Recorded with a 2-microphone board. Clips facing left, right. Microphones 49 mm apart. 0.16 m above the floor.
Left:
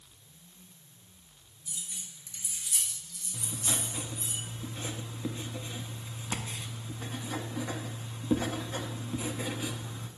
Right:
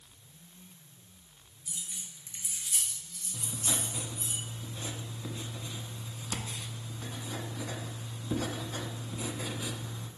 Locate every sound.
1.7 s keys jangling: 20° right (ahead or behind), 1.6 m; by 4.3 s 50° right (ahead or behind), 3 m
3.3 s writing: 30° left (ahead or behind), 0.7 m